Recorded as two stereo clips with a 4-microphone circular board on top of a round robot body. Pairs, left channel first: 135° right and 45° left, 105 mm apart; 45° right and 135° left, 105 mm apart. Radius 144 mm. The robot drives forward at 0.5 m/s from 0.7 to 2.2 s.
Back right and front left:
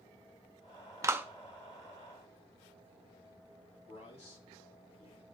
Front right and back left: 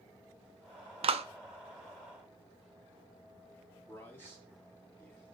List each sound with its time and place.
1.0 s a clap: 105° left, 0.5 m; by 1.2 s 120° left, 0.6 m
3.9 s a man speaking: 115° right, 2.5 m